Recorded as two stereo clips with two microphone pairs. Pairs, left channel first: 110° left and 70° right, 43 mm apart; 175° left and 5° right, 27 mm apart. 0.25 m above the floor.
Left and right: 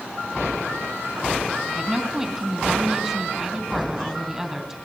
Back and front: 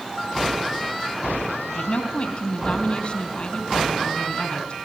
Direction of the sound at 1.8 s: 155° right.